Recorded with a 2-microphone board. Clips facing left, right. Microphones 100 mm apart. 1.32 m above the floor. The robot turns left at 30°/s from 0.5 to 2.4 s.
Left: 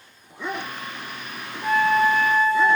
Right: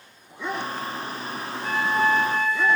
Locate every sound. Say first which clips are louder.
1.6 s a flute: left 4 dB; 5° left (ahead or behind), 3 m; by 2.7 s 20° right (ahead or behind), 3 m